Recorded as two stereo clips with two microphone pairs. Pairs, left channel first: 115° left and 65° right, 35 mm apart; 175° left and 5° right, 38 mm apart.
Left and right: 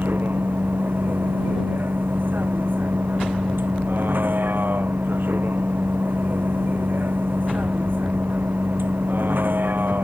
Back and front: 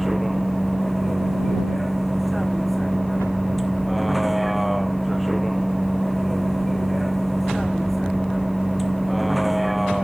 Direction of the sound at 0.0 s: 90° right.